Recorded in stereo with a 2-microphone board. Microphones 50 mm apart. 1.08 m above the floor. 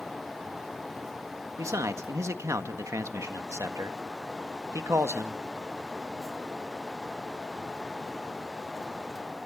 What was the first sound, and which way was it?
A man speaking, 75° right (ahead or behind).